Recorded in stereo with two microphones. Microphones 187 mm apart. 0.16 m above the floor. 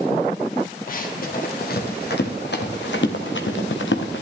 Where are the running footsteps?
45° left (ahead or behind), 2.5 m; by 4.2 s 75° left (ahead or behind), 1.6 m.